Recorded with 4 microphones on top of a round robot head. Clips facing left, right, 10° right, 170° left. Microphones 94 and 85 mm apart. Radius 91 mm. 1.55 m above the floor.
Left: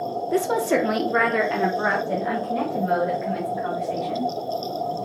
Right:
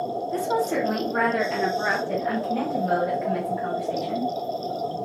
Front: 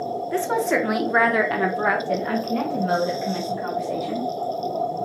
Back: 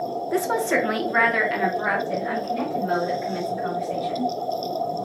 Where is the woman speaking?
95° left, 0.9 m; by 4.3 s 5° right, 2.5 m.